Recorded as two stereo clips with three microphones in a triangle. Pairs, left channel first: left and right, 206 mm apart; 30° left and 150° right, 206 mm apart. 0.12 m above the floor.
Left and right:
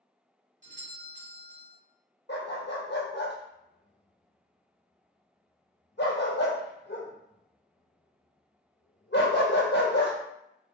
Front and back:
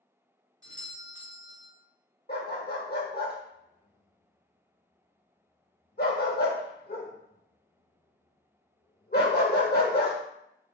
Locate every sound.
0.6 s a doorbell: 90° right, 1.9 m
2.3 s a dog barking: 65° left, 1.1 m